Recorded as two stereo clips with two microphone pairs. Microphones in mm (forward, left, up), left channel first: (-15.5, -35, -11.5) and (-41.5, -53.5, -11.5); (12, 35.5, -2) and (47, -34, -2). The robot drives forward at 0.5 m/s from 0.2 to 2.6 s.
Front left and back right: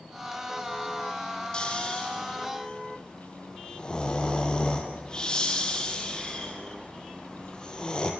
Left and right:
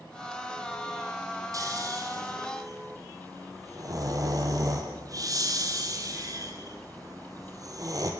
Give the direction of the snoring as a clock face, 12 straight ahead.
1 o'clock.